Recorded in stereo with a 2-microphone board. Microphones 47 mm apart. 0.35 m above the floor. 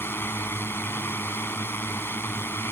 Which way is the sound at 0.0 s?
55° left (ahead or behind).